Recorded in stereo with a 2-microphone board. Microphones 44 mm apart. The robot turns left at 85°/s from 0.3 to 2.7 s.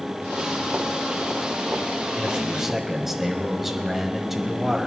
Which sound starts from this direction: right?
A man speaking, at 2.1 s.